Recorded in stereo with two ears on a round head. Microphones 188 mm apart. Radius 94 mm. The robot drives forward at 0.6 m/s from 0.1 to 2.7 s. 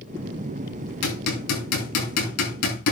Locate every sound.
1.0 s hammering: 85° left, 6.5 m; by 2.9 s 80° left, 7 m